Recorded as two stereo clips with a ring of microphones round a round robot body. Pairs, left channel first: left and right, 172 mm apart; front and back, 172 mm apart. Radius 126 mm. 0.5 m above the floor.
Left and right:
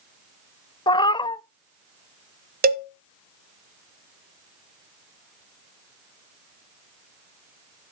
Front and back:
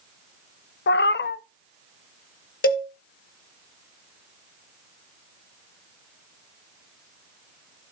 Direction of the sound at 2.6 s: 60° right.